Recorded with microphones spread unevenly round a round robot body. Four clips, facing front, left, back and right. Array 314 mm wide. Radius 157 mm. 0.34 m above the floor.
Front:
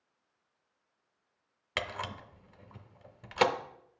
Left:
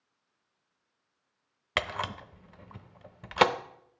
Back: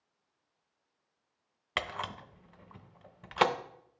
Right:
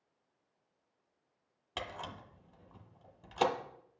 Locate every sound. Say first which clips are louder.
1.8 s a camera shutter: left 10 dB, even; 80° left, 0.6 m